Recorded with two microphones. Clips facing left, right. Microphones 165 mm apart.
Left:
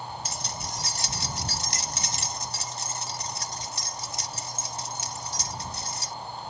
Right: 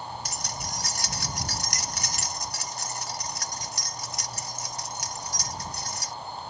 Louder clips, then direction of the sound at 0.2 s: Even; 25° left (ahead or behind).